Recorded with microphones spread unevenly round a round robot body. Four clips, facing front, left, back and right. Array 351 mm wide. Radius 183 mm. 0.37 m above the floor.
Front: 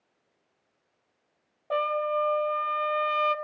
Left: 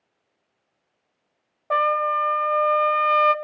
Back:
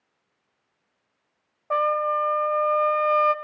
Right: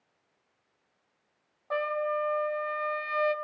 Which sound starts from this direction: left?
A trumpet, at 1.7 s.